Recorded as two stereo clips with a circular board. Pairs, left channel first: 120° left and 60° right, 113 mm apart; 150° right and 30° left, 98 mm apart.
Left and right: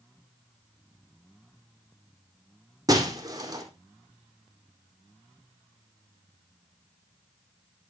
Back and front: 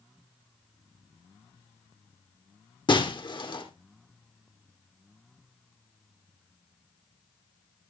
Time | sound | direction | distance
2.9 | breaking glass | 115° right | 4.5 m